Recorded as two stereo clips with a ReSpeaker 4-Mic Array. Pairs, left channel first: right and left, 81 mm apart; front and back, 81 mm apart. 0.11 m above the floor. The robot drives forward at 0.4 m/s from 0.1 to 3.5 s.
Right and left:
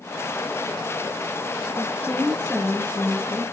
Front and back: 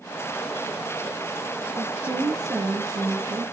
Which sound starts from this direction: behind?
A woman speaking, at 1.8 s.